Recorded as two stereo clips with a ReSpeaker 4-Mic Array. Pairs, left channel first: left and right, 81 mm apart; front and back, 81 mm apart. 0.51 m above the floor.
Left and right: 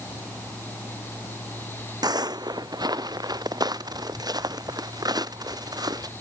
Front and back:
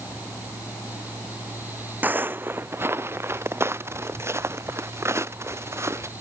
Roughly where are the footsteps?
Behind right.